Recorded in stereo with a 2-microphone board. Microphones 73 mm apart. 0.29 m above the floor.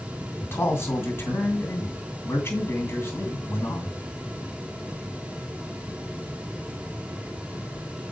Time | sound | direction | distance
0.4 | a man speaking | 30° left (ahead or behind) | 2.5 m